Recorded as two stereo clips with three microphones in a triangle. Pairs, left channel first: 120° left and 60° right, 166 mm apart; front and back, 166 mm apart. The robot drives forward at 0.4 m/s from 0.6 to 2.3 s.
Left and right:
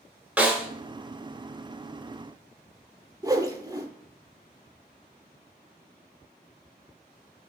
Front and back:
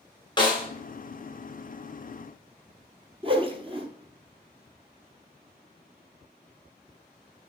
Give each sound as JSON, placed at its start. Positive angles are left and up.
{"t": 0.4, "sound": "a snare drum", "azimuth_deg": 15, "distance_m": 1.3}
{"t": 3.2, "sound": "a whoosh", "azimuth_deg": -125, "distance_m": 0.8}